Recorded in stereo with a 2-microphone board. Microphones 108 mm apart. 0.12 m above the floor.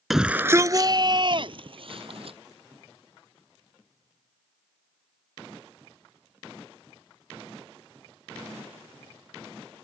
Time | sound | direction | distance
0.1 | a shout | centre (ahead or behind) | ?